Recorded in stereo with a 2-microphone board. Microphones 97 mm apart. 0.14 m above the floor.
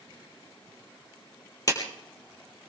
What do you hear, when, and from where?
1.7 s a clap: 35° left (ahead or behind), 3.5 m